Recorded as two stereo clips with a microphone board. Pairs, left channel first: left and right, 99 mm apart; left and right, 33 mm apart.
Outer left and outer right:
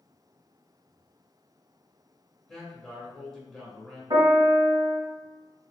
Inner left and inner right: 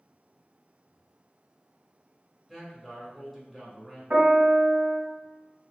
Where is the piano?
50° right (ahead or behind), 1.7 m.